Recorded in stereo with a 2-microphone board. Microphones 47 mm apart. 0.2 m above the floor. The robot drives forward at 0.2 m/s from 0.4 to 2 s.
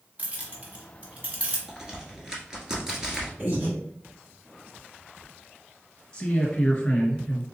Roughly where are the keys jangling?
Right.